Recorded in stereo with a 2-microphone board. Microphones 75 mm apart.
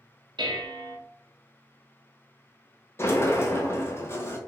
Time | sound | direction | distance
0.4 | dishes clattering | 85° right | 0.9 m
3.0 | a sliding door | 35° left (ahead or behind) | 0.7 m